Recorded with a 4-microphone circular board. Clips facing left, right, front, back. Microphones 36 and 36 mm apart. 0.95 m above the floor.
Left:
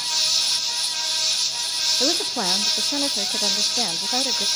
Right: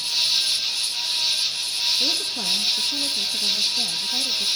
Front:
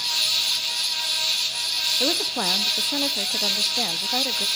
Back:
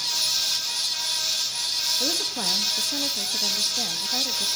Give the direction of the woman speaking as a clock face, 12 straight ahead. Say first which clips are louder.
Left 2 dB, front 4 dB; 10 o'clock.